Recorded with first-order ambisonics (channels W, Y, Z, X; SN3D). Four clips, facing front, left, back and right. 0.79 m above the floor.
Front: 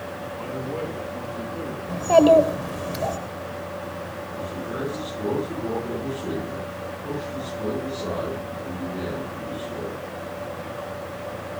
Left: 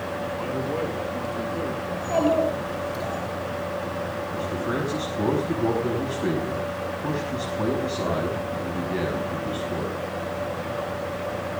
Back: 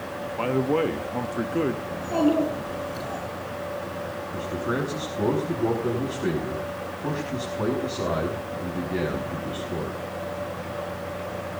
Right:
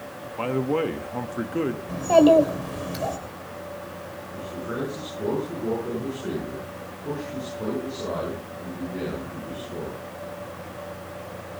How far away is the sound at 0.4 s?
About 1.2 m.